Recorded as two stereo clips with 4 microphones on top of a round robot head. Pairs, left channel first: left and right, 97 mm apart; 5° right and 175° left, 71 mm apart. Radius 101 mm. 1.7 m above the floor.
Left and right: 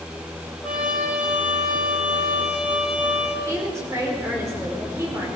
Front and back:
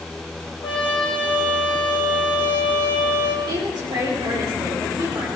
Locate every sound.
0.6 s a trumpet: 10° right, 3 m
3.5 s a woman speaking: 150° right, 5.5 m